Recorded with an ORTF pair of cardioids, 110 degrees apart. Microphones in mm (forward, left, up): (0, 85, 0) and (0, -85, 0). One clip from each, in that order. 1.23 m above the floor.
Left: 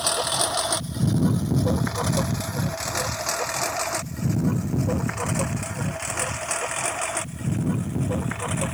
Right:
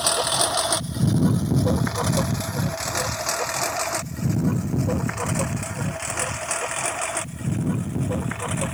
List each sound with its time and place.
0.0 s a lawn mower: 15° right; by 8.7 s 5° right